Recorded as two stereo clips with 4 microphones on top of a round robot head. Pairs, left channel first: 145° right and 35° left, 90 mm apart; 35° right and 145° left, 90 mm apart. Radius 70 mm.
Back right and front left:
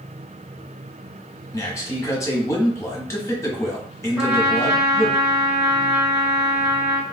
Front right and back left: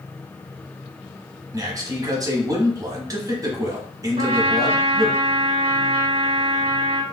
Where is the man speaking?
170° left, 1.2 m.